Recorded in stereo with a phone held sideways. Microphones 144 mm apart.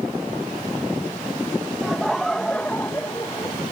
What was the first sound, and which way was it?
Laughter, 5° right (ahead or behind).